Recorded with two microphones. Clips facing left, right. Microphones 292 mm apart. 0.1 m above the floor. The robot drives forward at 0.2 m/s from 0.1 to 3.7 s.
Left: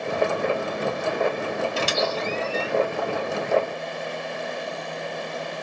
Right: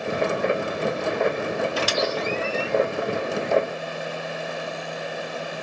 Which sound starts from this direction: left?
A squeak, at 1.8 s.